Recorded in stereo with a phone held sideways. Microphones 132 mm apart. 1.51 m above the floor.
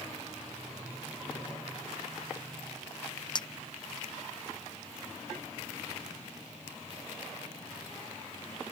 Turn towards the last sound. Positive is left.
turn(degrees=35)  # may be behind; listen again after turning